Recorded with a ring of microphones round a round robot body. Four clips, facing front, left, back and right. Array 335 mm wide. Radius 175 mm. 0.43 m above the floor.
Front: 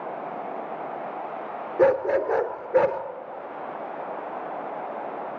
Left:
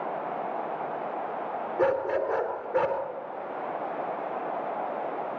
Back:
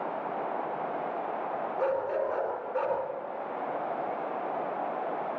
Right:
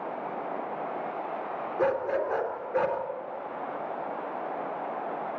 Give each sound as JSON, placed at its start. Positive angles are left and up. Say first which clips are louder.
{"t": 1.8, "sound": "a dog barking", "louder": "left 1 dB, front 10 dB", "azimuth_deg": 0, "distance_m": 3.0}